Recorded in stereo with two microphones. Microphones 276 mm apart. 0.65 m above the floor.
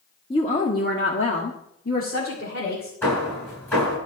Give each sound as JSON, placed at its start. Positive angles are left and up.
{"t": 0.3, "sound": "a woman speaking", "side_deg": 20, "distance_m": 1.6}
{"t": 3.0, "sound": "hammering", "side_deg": 10, "distance_m": 7.0}